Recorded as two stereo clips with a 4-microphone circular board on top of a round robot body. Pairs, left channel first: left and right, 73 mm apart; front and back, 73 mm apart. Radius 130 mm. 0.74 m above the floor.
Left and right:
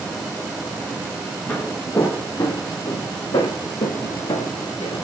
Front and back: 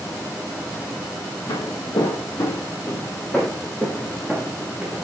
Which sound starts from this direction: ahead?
Footsteps, at 1.5 s.